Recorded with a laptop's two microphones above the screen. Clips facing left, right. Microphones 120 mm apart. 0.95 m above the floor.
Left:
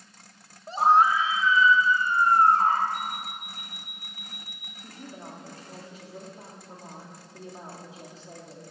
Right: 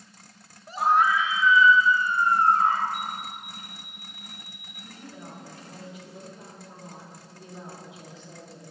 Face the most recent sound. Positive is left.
turn(degrees=35)  # may be behind; listen again after turning